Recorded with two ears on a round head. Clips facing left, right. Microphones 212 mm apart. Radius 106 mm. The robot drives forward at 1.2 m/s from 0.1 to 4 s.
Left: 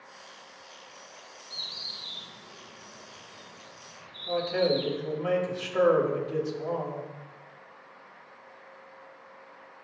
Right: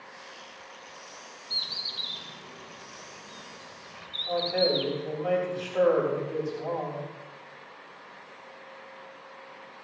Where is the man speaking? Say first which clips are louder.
Even; 30° left (ahead or behind), 6.5 m.